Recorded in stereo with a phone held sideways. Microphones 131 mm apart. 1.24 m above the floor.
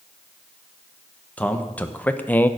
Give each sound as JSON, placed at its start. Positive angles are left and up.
{"t": 1.4, "sound": "a man speaking", "side_deg": 10, "distance_m": 1.1}